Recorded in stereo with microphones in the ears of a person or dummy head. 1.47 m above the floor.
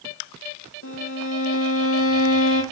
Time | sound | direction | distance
0.8 | a violin | 75° left (ahead or behind) | 1.3 m